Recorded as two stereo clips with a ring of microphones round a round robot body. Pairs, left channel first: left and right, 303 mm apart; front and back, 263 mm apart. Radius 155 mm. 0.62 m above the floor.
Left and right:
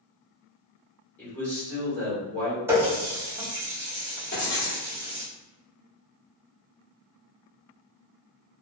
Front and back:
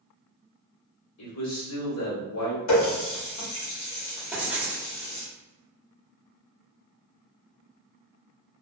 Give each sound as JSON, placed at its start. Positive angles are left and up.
{"t": 1.2, "sound": "a man speaking", "azimuth_deg": 5, "distance_m": 1.5}
{"t": 2.7, "sound": "a running tap", "azimuth_deg": -10, "distance_m": 0.9}
{"t": 4.3, "sound": "writing", "azimuth_deg": 100, "distance_m": 1.2}